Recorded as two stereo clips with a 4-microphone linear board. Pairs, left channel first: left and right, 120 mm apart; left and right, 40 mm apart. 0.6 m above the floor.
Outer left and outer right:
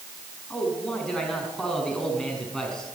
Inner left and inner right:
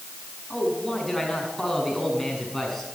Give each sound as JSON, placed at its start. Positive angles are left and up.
{"t": 0.5, "sound": "a man speaking", "side_deg": 5, "distance_m": 6.0}